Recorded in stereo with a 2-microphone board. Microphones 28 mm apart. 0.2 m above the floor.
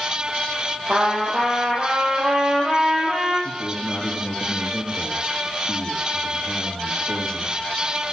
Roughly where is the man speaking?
Centre.